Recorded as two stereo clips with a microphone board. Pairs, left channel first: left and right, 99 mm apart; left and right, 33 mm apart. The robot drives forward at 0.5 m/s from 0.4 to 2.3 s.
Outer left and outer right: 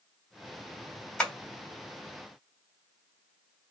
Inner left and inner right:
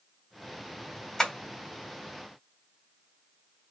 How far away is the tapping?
About 1.9 m.